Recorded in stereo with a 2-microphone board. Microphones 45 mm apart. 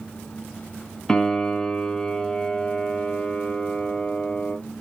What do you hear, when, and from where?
1.1 s a piano: 10° left (ahead or behind), 1.2 m